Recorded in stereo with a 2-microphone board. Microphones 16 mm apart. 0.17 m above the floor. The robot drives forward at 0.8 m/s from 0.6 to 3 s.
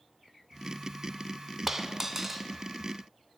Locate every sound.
1.7 s a dropped coin: 25° right (ahead or behind), 0.7 m; by 2.5 s 15° right (ahead or behind), 1.0 m